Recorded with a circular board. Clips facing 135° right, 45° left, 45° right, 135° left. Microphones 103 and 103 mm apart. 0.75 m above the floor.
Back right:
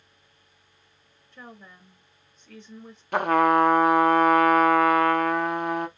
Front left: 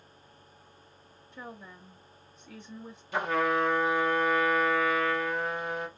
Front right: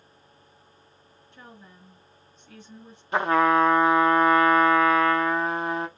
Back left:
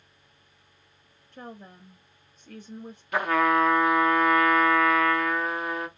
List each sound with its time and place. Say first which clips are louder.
1.3 s a woman speaking: front left 1 dB, back left 6 dB; 120° left, 0.6 m
3.1 s a trumpet: back right 8 dB, front right 2 dB; 105° right, 0.5 m